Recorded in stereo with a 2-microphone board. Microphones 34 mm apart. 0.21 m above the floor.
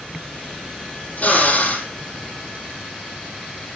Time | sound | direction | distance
1.2 | a drill | 40° left (ahead or behind) | 6.5 m